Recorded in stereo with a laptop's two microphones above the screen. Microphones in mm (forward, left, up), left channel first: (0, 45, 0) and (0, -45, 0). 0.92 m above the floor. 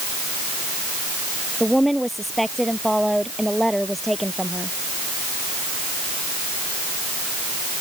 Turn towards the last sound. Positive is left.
turn(degrees=0)  # may be behind; listen again after turning